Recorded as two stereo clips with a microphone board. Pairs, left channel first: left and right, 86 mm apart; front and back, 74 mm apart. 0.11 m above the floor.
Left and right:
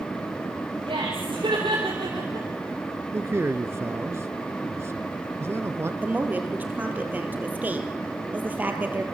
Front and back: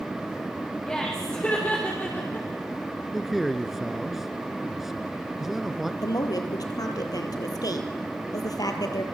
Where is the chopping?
No chopping in this recording.